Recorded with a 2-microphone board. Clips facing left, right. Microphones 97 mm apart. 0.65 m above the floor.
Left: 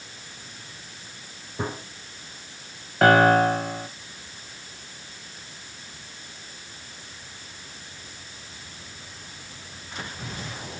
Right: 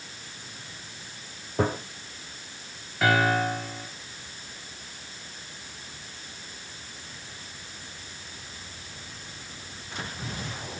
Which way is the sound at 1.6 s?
80° right.